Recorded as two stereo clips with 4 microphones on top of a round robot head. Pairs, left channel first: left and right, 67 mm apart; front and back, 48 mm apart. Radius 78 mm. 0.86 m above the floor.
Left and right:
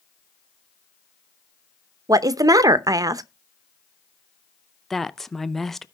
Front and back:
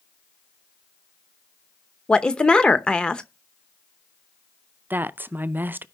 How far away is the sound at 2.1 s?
About 0.8 m.